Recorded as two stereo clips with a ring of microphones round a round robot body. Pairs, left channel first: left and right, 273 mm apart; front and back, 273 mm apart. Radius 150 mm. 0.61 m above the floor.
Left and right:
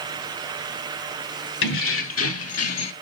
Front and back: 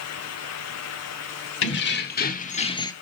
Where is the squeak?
I don't hear a squeak.